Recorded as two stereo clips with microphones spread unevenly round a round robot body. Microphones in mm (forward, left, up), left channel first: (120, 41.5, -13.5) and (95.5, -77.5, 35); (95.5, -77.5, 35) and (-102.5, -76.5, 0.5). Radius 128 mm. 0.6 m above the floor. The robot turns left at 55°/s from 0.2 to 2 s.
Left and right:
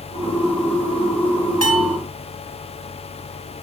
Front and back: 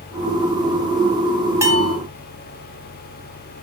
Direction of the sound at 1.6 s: 105° right.